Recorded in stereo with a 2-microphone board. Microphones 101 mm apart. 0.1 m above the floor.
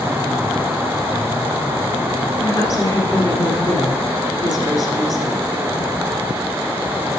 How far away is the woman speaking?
About 1.9 m.